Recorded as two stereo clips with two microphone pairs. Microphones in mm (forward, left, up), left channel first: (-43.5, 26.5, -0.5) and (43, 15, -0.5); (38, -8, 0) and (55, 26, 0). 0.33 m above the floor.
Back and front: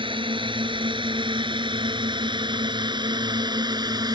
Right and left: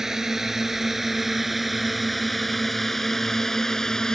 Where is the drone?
15° right; by 4.2 s 40° right.